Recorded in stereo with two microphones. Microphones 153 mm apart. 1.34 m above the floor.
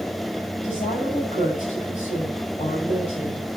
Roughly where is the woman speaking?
Left.